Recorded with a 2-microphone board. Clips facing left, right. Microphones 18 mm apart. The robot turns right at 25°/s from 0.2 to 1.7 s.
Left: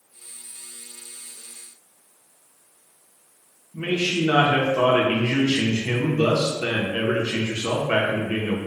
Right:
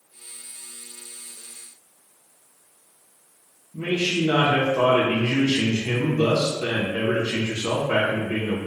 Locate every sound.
3.7 s a man speaking: 70° left (ahead or behind), 0.6 m